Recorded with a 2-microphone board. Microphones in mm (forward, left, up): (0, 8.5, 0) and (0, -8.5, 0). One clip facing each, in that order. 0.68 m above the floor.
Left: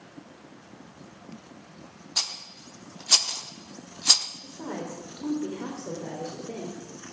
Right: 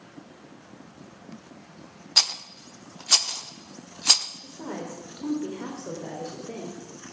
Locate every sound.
2.2 s a rattle: 40° right (ahead or behind), 0.7 m
4.4 s a woman speaking: 25° right (ahead or behind), 3 m